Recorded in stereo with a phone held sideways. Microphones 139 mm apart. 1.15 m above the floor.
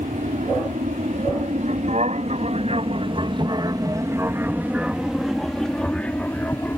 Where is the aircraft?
65° right (ahead or behind); by 6.8 s 15° left (ahead or behind).